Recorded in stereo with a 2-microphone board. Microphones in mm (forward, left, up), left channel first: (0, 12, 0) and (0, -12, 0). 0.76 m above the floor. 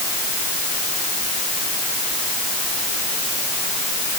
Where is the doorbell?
No doorbell in this recording.